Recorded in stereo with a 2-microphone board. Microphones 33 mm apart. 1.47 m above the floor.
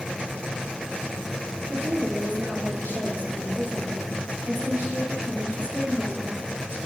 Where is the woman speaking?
70° right (ahead or behind), 4 m.